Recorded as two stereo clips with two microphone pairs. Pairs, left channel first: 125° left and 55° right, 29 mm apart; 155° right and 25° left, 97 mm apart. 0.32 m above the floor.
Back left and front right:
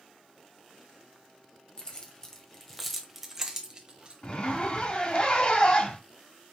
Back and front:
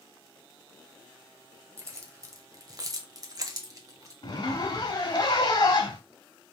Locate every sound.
1.8 s keys jangling: 75° left, 1.2 m; by 4.1 s 15° right, 1.2 m
4.2 s a zipper: 170° left, 1.0 m